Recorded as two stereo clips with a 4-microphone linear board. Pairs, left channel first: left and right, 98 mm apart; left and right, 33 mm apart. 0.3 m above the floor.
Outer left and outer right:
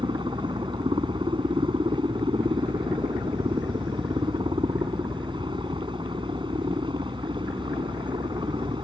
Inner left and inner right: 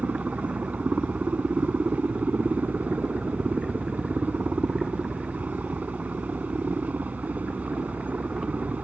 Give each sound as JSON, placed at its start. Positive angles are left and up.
{"t": 0.0, "sound": "a helicopter", "side_deg": -55}